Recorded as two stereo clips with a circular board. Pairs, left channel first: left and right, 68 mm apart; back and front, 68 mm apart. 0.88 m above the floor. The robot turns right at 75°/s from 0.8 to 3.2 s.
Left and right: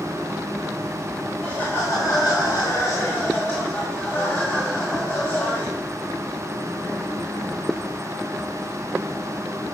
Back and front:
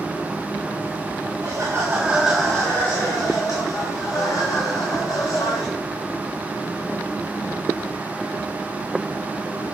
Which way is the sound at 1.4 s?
15° left.